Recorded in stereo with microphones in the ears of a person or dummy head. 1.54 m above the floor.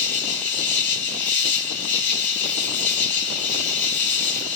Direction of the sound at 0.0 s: 10° left (ahead or behind).